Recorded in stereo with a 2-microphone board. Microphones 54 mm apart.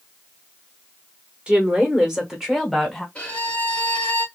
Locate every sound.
1.5 s a woman speaking: 20° right (ahead or behind), 1.1 m; by 3.0 s 5° right (ahead or behind), 1.3 m
3.1 s a violin: 20° left (ahead or behind), 1.1 m